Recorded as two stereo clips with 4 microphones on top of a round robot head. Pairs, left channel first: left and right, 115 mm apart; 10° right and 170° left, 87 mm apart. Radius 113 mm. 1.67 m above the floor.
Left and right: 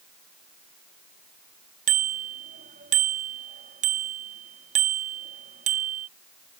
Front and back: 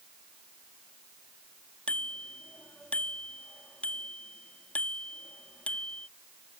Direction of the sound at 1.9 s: 90° right.